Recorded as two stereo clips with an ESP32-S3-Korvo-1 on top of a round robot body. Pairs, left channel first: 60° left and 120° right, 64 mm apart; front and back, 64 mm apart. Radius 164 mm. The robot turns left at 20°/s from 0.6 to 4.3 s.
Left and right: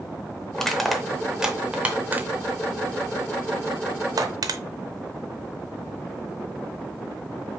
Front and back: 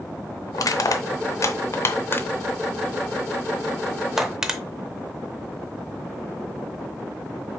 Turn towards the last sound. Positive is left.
turn(degrees=-100)